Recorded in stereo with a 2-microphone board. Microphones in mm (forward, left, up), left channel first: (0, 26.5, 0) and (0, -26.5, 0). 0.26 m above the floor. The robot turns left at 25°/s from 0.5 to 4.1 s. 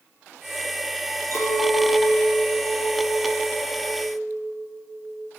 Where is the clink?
55° left, 4 m; by 5.3 s 15° right, 4 m.